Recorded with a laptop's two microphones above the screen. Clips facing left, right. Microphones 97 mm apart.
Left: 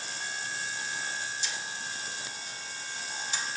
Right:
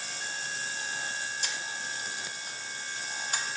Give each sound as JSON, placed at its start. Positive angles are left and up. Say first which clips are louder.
{"t": 1.4, "sound": "a camera shutter", "louder": "right 1 dB", "side_deg": -55, "distance_m": 0.6}